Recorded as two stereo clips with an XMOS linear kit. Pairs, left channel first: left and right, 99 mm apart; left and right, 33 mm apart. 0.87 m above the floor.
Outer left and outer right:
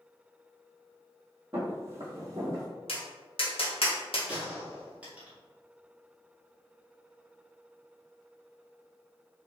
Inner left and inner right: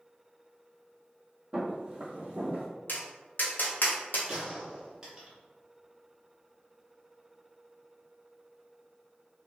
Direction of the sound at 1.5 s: 20° right (ahead or behind).